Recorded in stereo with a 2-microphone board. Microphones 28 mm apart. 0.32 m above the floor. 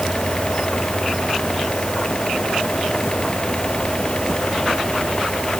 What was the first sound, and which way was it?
Only background noise.